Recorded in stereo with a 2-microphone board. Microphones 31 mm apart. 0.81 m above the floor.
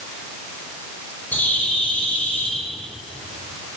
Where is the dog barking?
No dog barking in this recording.